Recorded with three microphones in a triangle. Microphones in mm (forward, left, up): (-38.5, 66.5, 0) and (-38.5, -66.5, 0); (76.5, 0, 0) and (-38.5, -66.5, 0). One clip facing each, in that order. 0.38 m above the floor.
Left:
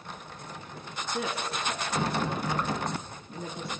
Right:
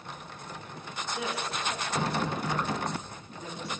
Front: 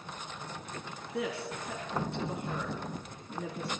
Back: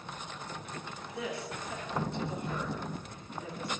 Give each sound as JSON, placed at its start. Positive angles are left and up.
{"t": 1.1, "sound": "a woman speaking", "azimuth_deg": 55, "distance_m": 4.0}